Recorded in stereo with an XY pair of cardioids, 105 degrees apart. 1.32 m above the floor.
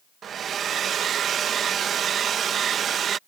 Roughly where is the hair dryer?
Ahead right.